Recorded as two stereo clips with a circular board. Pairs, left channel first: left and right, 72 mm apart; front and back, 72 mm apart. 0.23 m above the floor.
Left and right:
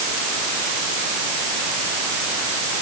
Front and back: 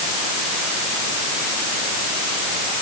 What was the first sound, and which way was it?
Only background noise.